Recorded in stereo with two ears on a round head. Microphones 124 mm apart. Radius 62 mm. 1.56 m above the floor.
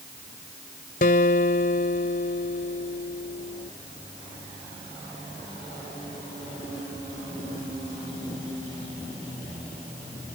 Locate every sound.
1.0 s a guitar: 65° left (ahead or behind)